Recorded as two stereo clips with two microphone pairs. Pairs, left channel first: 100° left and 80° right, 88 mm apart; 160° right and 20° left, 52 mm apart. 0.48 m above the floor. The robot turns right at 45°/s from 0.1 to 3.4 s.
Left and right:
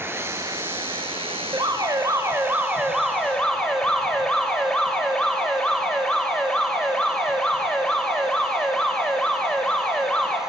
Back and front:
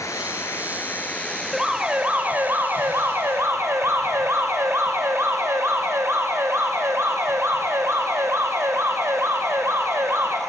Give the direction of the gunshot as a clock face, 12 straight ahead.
No gunshot in this recording.